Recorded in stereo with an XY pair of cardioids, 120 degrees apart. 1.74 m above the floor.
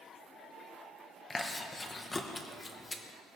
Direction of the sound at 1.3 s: 25° left.